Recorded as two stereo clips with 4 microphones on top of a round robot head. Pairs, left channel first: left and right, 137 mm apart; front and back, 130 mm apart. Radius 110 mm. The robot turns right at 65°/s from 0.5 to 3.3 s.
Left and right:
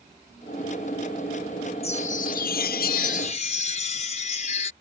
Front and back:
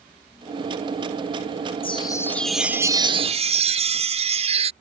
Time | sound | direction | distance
1.8 | a chime | 45° left | ?